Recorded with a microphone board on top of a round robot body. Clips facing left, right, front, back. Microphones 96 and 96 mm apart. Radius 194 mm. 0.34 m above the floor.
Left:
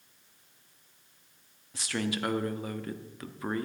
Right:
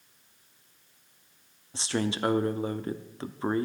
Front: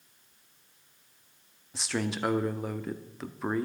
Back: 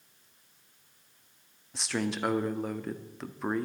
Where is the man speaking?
90° right, 1.2 m.